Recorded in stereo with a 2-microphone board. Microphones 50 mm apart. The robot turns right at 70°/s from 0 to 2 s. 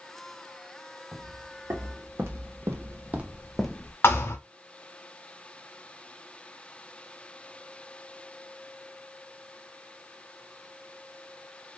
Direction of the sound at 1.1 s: 70° right (ahead or behind).